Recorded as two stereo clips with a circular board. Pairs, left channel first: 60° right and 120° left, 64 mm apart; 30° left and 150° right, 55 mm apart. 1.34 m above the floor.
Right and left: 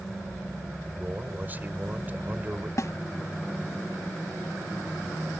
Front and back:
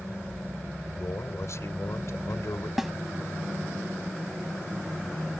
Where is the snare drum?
65° right.